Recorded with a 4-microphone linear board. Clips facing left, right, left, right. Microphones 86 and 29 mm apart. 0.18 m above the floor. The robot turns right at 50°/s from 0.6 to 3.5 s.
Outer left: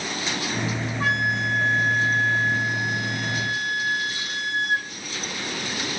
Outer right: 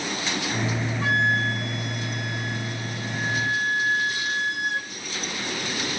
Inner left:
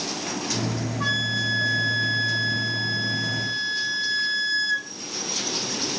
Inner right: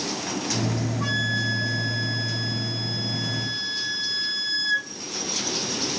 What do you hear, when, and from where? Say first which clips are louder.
1.0 s a flute: outer right 1 dB, inner left 2 dB; 75° left, 1.8 m; by 4.9 s 160° right, 1.8 m